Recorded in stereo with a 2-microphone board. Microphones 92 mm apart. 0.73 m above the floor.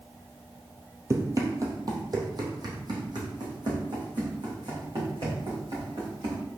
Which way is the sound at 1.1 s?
30° right (ahead or behind).